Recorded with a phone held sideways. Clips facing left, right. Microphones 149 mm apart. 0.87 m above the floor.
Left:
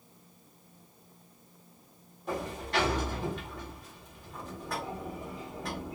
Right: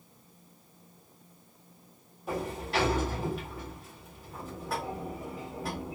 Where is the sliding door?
5° right (ahead or behind), 1.9 m.